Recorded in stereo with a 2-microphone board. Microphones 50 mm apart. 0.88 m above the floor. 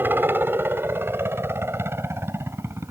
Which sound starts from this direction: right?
A helicopter, at 0.0 s.